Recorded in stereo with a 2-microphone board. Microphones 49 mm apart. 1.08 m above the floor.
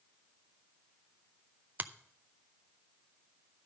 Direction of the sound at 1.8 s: 35° right (ahead or behind).